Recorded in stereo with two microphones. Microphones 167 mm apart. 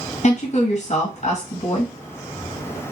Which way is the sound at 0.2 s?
45° left (ahead or behind).